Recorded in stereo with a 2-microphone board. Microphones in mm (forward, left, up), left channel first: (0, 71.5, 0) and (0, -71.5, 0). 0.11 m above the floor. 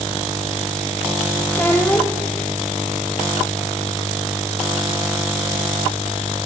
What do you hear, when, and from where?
1.5 s a child speaking: 15° left (ahead or behind), 2.5 m